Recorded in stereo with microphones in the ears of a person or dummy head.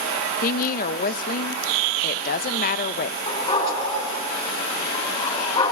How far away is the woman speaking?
About 0.7 m.